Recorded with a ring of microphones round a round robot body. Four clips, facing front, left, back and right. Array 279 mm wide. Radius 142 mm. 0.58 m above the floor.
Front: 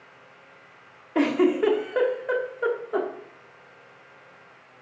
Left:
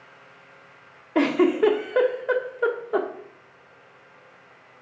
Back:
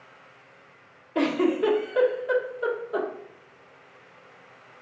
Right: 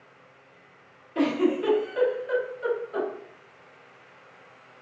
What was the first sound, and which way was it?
A giggle, 70° left.